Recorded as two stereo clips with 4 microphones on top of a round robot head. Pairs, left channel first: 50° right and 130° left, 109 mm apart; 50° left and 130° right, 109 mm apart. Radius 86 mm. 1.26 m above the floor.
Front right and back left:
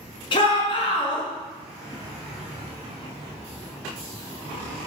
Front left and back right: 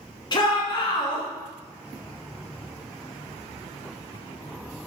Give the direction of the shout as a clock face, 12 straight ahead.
12 o'clock.